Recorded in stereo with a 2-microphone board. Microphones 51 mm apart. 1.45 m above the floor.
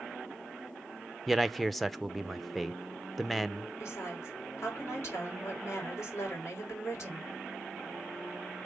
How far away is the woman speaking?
About 4.5 m.